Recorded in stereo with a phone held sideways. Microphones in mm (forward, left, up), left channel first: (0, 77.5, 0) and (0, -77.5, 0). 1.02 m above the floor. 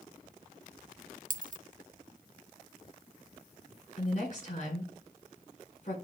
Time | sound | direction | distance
1.3 | a dropped coin | 60° right (ahead or behind) | 0.5 m
4.0 | a woman speaking | 50° left (ahead or behind) | 4 m